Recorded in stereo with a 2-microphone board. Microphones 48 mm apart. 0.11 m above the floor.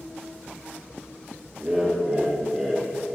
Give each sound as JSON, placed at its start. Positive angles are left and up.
{"t": 1.6, "sound": "laughter", "side_deg": -20, "distance_m": 2.0}